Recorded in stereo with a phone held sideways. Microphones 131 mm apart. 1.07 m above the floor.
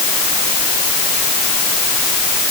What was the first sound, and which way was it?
Only background noise.